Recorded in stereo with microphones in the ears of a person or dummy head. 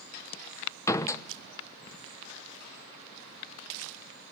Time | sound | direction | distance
0.9 | a door slam | 15° left (ahead or behind) | 0.9 m